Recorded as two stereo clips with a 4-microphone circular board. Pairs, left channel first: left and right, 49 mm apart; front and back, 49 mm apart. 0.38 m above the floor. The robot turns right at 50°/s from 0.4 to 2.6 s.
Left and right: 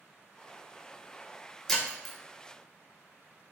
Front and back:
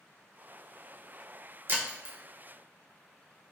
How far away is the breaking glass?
About 0.6 m.